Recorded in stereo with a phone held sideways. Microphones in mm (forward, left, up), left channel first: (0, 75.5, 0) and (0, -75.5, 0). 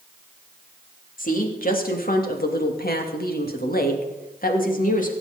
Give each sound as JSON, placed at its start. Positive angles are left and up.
{"t": 1.2, "sound": "a woman speaking", "side_deg": 65, "distance_m": 3.0}